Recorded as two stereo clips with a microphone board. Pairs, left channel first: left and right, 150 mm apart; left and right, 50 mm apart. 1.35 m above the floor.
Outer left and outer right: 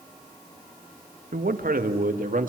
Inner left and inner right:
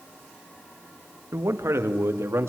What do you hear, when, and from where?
1.3 s a man speaking: 90° right, 1.7 m; by 2.5 s 70° right (ahead or behind), 2.5 m